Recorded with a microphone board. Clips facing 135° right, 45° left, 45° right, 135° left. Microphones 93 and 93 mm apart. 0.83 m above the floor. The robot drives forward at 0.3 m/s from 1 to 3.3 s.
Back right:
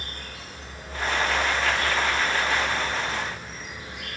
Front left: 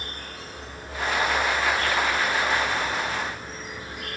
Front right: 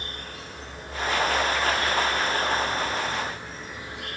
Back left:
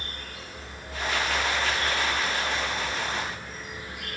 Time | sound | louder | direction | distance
0.0 | an insect | front left 2 dB, front right 2 dB | 10° left | 4 m